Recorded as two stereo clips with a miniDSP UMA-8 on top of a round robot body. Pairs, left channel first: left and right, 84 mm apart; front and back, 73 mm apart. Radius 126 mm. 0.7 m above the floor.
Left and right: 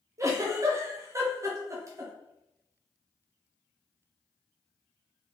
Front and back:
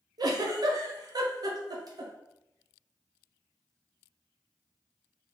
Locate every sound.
0.2 s a giggle: 145° right, 0.7 m